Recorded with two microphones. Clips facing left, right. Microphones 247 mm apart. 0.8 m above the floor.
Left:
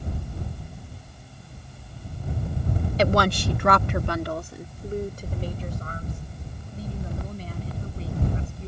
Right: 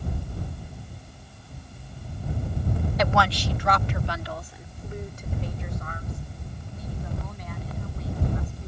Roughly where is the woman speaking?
Left.